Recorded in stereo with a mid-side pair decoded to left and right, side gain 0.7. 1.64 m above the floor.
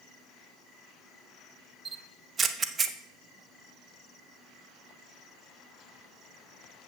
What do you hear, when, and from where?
1.9 s a camera shutter: 30° right, 0.8 m